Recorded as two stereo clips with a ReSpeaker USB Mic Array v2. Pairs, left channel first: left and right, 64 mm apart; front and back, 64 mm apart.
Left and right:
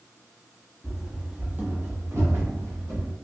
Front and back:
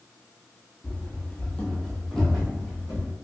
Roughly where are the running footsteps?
Ahead.